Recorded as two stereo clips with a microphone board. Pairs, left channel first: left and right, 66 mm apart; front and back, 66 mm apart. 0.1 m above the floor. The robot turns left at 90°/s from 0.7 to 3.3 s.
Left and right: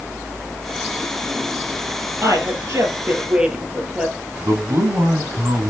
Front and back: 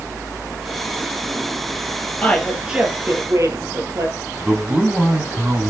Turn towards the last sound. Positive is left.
turn(degrees=-115)